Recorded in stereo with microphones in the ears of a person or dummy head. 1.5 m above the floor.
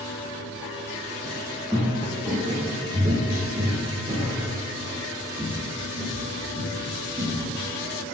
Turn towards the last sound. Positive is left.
turn(degrees=-20)  # may be behind; listen again after turning